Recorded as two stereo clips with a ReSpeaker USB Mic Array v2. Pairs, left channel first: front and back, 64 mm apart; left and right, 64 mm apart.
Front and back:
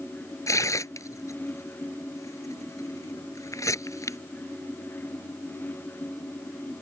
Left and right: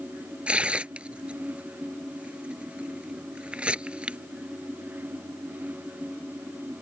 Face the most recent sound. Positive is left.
turn(degrees=-20)